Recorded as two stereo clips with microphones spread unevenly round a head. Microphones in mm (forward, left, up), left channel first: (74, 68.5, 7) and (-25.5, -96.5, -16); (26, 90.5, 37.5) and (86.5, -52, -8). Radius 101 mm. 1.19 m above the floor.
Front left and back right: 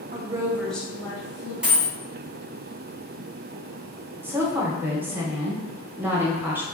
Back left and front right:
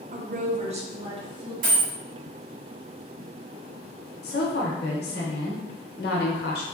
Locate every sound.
0.1 s a woman speaking: 75° right, 0.7 m; by 1.5 s 10° right, 1.8 m
1.6 s a dropped coin: 30° right, 1.8 m
4.2 s a woman speaking: 160° left, 0.8 m